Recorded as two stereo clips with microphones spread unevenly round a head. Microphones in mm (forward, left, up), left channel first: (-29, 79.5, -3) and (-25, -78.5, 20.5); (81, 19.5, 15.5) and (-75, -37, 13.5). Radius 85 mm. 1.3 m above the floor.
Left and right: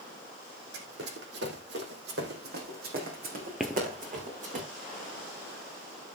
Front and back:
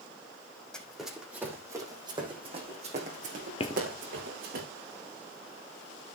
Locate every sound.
0.7 s running footsteps: 65° right, 4.5 m; by 4.6 s 130° right, 7 m
3.6 s footsteps: 10° right, 1.5 m